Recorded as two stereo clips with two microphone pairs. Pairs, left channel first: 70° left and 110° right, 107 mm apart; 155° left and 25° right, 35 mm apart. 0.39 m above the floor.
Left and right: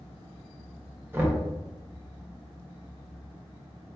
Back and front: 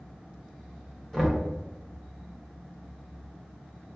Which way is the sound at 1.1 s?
120° right.